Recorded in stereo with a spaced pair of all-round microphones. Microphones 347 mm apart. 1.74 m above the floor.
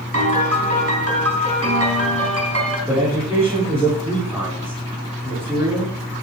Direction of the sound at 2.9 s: 5° right (ahead or behind).